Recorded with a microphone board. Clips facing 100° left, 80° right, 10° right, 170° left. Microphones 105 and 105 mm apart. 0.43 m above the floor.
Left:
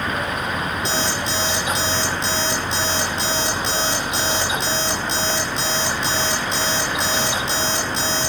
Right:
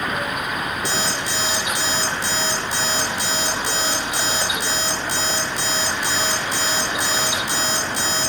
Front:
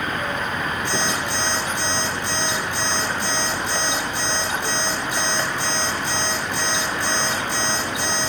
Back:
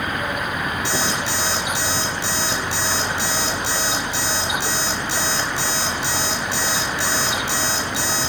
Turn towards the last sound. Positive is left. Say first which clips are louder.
# left 1 dB, back 1 dB
turn(degrees=160)